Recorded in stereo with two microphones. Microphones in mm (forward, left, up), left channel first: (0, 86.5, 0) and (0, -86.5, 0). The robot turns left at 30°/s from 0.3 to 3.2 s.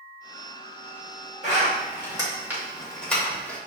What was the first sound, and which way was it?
A zipper, 45° right (ahead or behind).